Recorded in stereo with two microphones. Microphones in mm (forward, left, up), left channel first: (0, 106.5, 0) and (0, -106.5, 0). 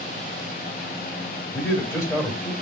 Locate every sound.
1.5 s a man speaking: 15° left (ahead or behind), 2.0 m